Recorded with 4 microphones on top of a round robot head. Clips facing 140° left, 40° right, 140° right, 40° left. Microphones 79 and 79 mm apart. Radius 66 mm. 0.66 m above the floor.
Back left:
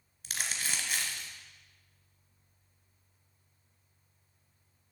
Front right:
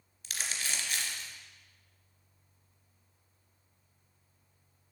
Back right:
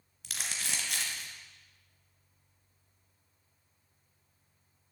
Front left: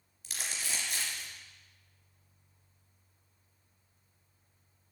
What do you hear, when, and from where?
0.2 s crumpling: 170° right, 2 m